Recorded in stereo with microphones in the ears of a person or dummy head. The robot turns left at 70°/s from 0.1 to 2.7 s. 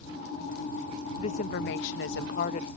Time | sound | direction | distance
1.2 | a woman speaking | 150° left | ?